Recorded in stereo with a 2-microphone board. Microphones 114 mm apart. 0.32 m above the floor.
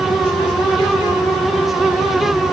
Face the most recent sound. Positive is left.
No sound to turn to.